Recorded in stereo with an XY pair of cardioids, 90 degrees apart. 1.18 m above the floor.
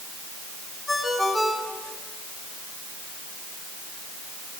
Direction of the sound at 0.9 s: Straight ahead.